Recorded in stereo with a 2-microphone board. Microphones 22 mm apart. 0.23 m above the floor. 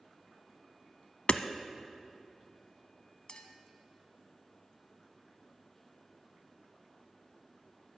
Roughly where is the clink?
Left.